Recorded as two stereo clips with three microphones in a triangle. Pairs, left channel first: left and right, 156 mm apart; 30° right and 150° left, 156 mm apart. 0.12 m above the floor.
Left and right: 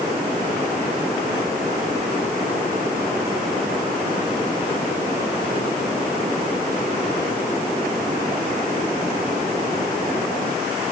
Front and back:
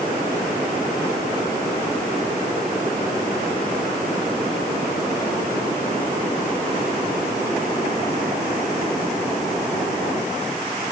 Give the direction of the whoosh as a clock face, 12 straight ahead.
No whoosh in this recording.